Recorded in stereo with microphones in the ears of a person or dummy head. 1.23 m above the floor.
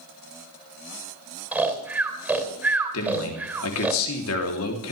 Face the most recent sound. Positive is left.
turn(degrees=80)